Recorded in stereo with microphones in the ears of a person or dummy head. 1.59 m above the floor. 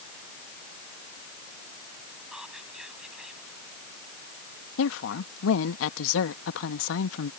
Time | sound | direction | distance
2.3 | whispering | centre (ahead or behind) | ?
4.8 | a woman speaking | 80° left | ?